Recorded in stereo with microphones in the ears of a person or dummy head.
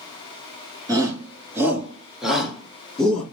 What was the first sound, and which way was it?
A shout, 20° right (ahead or behind).